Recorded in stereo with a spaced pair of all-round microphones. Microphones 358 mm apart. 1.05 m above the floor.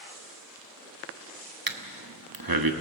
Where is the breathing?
70° right (ahead or behind), 1.2 m.